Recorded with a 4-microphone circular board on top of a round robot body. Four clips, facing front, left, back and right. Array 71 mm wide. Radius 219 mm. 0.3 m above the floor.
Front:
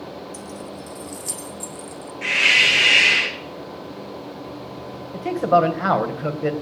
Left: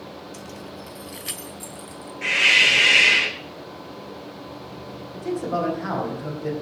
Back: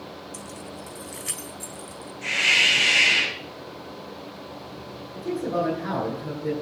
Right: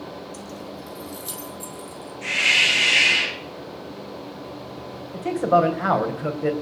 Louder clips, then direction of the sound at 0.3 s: Right 2 dB, front 4 dB; 110° left.